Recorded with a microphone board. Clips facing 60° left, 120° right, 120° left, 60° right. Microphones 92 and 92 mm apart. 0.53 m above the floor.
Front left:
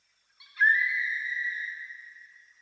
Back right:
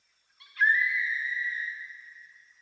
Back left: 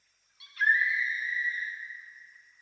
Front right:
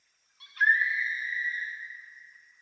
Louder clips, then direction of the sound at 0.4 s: Front left 1 dB, front right 1 dB; 15° right.